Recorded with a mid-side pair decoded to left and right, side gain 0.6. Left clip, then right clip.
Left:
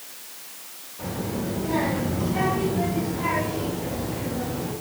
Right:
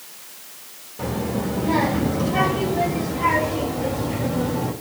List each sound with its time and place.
1.0 s a child speaking: 50° right, 6.5 m; by 4.7 s 75° right, 7 m